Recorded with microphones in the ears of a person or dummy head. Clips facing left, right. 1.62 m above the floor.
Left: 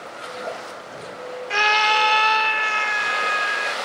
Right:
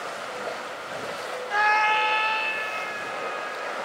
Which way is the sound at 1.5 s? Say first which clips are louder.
Left 2 dB; 35° left (ahead or behind).